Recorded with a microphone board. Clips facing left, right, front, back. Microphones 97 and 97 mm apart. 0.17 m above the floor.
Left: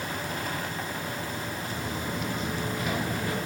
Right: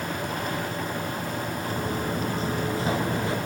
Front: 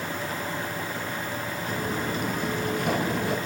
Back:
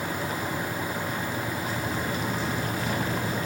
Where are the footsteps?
45° right, 5 m; by 3.4 s 25° right, 5 m.